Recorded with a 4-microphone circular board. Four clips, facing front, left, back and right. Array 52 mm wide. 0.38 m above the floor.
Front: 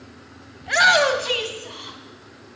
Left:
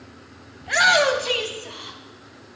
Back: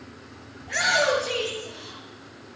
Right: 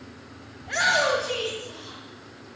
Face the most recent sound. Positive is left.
turn(degrees=45)